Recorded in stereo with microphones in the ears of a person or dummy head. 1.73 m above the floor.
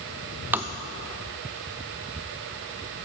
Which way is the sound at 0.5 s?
10° right (ahead or behind).